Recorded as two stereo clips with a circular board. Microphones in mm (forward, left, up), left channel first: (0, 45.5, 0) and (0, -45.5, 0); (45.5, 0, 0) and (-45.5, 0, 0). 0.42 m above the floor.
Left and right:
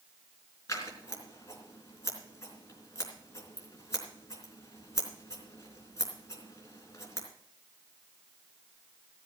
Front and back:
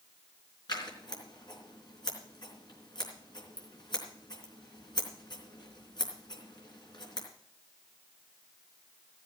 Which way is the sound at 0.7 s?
35° left.